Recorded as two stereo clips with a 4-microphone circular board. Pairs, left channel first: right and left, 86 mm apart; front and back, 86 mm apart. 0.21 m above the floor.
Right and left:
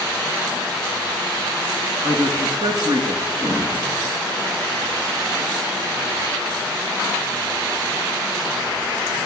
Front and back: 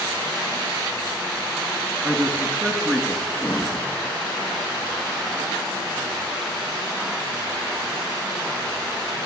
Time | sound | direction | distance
2.0 | a man speaking | 125° left | 1.3 m
3.4 | breathing | 85° left | 7.5 m